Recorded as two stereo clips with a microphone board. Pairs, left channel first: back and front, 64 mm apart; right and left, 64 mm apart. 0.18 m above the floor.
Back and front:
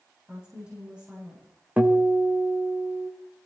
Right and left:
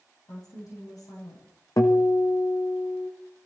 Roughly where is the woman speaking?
Right.